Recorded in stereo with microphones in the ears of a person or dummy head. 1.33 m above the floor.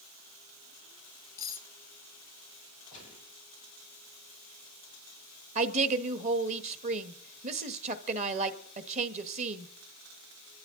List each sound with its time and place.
1.4 s cutlery clinking: 20° left (ahead or behind), 0.8 m
2.9 s a gunshot: 25° right (ahead or behind), 8.5 m
5.5 s a woman speaking: 45° right (ahead or behind), 1.4 m